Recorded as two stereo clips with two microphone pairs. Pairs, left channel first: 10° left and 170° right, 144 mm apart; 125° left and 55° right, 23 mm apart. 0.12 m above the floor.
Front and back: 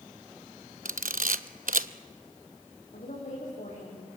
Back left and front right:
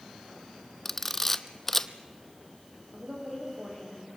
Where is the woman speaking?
20° right, 8 m.